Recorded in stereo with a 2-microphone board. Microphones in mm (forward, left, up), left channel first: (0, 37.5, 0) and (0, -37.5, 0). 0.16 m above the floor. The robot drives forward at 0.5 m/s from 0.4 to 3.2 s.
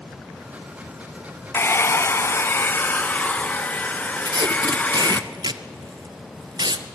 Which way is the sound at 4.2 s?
70° right (ahead or behind).